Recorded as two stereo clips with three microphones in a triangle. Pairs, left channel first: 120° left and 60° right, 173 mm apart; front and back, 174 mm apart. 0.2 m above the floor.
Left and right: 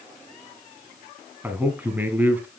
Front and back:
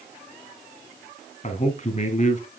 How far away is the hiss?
No hiss in this recording.